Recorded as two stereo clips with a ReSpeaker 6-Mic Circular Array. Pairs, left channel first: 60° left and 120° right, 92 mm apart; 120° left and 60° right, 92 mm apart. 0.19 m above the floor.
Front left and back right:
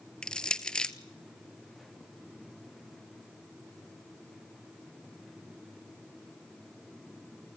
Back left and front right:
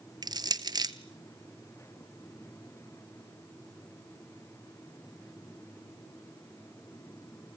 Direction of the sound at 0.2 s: 20° right.